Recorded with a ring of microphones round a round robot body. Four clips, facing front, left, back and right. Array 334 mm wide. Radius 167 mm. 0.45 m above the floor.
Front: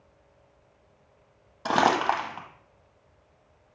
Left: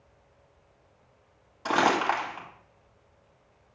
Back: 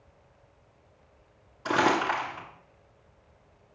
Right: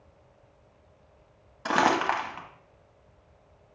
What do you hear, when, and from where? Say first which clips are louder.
1.6 s crumpling: even, front 2 dB; 20° right, 1.3 m